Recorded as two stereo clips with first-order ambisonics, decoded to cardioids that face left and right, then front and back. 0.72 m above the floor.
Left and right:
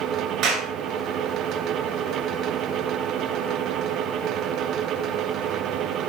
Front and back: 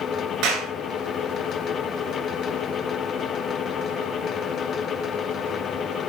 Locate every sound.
0.4 s a clap: 135° right, 9.5 m